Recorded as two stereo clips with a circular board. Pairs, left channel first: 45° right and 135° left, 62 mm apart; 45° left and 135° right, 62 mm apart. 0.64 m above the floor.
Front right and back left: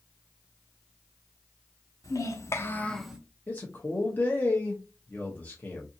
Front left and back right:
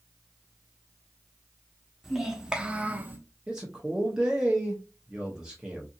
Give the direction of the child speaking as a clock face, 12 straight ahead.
2 o'clock.